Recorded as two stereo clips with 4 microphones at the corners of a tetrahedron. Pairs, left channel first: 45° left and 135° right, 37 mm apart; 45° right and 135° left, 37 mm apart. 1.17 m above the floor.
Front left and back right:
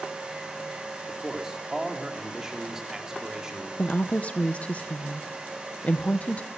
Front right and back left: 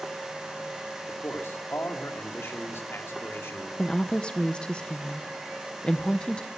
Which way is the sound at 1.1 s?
60° right.